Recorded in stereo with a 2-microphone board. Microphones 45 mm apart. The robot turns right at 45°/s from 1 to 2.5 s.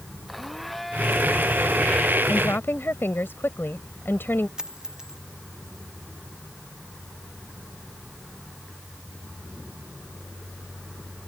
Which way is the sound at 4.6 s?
15° right (ahead or behind).